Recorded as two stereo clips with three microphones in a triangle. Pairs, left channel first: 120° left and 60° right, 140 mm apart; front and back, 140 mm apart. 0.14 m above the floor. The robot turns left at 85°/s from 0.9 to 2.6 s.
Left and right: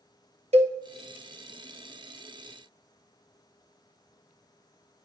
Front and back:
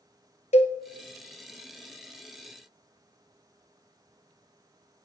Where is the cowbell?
30° right, 0.7 m.